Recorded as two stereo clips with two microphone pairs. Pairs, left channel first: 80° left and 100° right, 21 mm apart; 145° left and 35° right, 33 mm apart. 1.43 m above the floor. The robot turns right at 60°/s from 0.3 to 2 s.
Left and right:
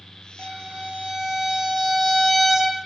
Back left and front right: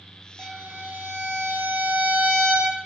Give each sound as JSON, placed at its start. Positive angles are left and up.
{"t": 0.4, "sound": "a violin", "azimuth_deg": -100, "distance_m": 0.6}